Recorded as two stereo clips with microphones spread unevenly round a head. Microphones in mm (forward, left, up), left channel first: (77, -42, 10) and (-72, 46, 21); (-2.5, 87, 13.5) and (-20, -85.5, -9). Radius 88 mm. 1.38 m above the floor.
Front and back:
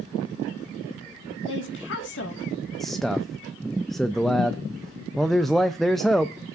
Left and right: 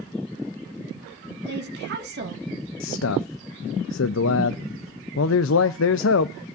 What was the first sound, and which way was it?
A woman speaking, 60° right.